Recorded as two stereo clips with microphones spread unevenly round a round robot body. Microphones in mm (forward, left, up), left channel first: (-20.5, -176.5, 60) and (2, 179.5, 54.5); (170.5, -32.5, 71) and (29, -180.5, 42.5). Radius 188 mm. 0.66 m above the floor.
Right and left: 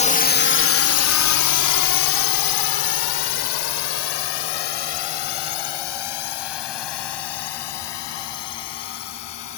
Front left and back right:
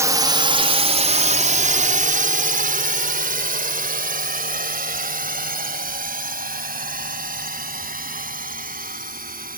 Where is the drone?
135° right; by 9.6 s 90° right.